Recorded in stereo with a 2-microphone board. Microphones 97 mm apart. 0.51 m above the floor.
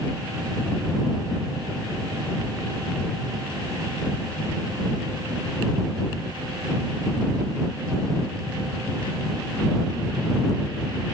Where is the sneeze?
I don't hear a sneeze.